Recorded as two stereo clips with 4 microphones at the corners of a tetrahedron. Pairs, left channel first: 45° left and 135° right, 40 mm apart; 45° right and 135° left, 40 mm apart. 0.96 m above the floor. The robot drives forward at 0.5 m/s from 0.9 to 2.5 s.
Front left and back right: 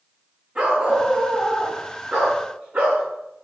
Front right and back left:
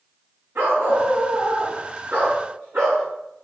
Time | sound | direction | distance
0.6 | a dog barking | 155° left | 3 m